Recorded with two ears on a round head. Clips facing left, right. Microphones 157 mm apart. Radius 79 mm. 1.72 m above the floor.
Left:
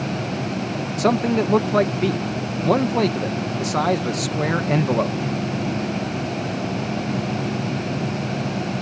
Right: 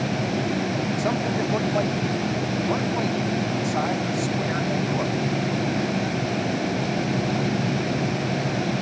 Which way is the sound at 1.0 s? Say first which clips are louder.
Left 10 dB; 85° left.